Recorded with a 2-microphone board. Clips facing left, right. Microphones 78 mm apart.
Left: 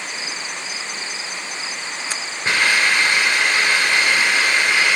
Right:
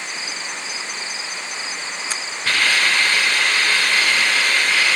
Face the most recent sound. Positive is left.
turn(degrees=20)  # may be behind; listen again after turning